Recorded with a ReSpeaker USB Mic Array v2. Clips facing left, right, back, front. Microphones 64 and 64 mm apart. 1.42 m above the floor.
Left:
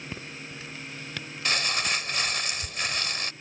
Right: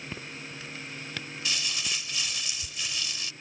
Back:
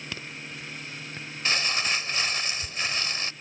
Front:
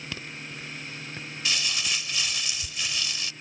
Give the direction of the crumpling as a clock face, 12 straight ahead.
8 o'clock.